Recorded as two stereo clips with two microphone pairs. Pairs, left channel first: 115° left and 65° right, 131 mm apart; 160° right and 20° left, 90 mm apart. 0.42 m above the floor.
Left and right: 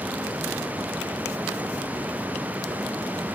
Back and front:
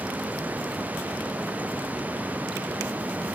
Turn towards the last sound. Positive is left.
No sound to turn to.